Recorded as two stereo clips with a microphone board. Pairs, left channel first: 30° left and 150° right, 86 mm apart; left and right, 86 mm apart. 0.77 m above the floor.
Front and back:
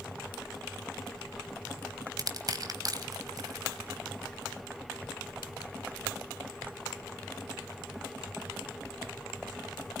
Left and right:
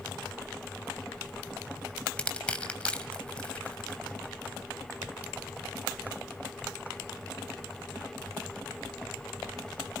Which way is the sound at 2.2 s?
170° left.